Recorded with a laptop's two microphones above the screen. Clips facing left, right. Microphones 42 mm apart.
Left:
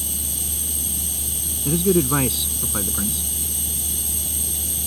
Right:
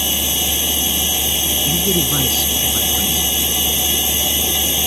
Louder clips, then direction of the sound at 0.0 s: Right 14 dB; 65° right (ahead or behind).